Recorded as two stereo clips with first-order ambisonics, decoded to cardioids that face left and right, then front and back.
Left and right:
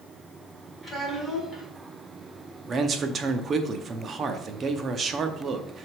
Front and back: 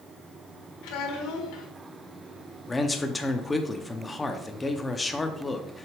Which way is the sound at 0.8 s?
5° left.